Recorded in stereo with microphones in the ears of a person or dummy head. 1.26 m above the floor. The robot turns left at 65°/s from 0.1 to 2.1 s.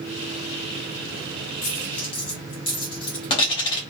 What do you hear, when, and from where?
1.6 s a dropped coin: 35° left (ahead or behind), 0.9 m; by 3.8 s 25° left (ahead or behind), 0.9 m